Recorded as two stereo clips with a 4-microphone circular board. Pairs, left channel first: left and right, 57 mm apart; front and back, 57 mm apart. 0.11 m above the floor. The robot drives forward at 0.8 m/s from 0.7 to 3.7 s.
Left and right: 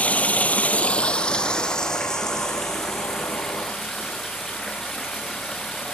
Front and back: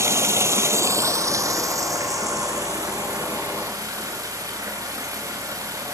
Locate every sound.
0.0 s running water: 155° left, 0.8 m; by 6.0 s 175° left, 3 m